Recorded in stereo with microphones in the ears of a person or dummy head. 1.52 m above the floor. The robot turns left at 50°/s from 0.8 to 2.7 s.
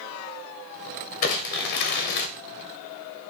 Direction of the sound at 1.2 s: 125° left.